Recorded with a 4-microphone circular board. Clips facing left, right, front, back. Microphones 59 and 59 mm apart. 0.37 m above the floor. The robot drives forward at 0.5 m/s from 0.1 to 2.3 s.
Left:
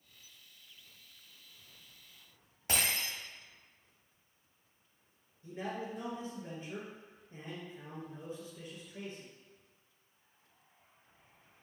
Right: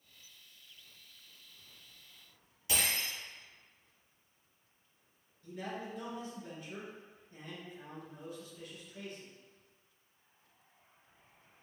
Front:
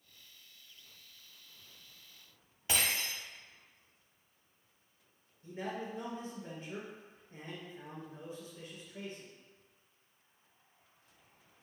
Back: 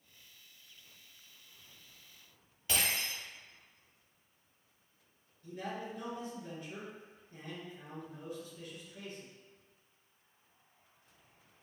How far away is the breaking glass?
About 1.2 m.